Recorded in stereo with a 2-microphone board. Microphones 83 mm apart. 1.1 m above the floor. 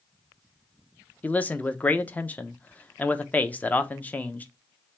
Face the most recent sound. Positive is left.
turn(degrees=20)  # may be behind; listen again after turning